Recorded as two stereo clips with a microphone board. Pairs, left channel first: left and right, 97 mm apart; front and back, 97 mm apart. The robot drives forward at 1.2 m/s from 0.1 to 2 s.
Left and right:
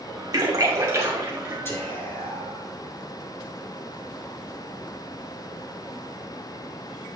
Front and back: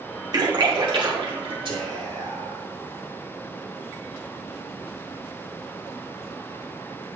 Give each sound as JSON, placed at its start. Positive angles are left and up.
{"t": 0.3, "sound": "a splash", "azimuth_deg": -140, "distance_m": 2.0}
{"t": 1.6, "sound": "whispering", "azimuth_deg": 155, "distance_m": 3.5}